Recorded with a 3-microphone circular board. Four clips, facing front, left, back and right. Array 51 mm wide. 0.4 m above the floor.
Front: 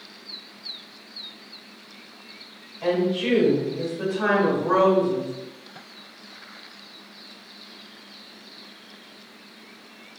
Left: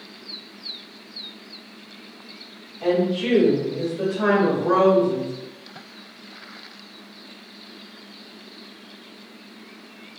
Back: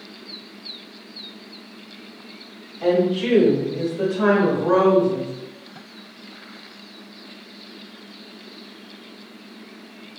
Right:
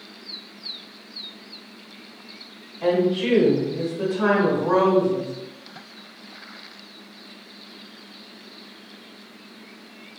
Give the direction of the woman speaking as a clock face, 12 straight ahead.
6 o'clock.